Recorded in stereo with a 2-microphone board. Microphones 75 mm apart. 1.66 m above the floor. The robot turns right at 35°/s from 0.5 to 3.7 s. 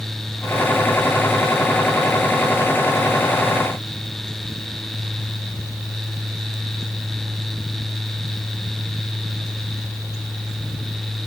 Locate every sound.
Only background noise.